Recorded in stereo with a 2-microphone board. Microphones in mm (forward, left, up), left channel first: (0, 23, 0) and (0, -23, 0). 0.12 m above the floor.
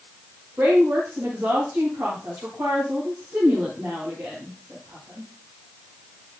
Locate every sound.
0.6 s a woman speaking: 50° right (ahead or behind), 9.5 m